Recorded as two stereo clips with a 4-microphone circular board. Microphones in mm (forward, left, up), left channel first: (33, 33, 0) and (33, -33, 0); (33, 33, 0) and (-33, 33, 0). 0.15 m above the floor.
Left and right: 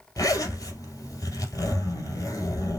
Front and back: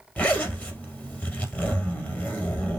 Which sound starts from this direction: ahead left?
A zipper, at 0.2 s.